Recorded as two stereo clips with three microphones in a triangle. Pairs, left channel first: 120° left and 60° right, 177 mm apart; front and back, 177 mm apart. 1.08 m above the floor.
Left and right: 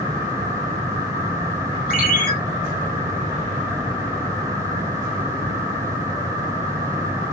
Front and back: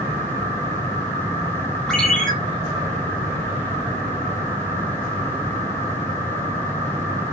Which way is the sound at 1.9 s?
85° left.